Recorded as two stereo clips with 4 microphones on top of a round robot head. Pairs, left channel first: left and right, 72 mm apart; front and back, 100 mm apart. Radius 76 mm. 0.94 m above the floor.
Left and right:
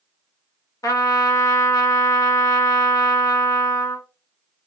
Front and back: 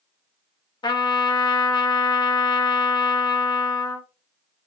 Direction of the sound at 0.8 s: 50° left.